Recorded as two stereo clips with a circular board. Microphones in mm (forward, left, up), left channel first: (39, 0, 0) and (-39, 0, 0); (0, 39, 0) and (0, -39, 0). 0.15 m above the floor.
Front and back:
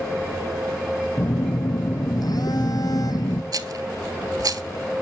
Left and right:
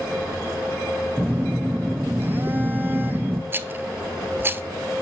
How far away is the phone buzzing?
About 1.4 m.